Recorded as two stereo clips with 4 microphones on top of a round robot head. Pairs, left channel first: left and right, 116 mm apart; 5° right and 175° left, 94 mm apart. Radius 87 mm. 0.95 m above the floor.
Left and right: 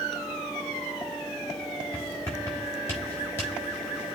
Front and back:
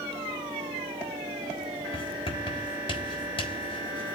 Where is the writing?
15° left, 4.5 m.